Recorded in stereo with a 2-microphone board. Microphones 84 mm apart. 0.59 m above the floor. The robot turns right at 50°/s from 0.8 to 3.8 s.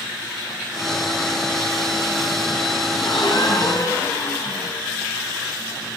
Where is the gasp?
95° left, 2.5 m; by 4.7 s 140° left, 2.5 m.